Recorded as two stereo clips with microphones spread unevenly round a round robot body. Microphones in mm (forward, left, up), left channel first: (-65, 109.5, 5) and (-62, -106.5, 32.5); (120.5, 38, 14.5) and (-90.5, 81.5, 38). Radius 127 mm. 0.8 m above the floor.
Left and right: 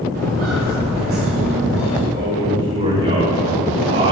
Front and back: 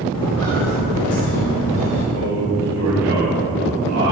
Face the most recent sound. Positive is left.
turn(degrees=-140)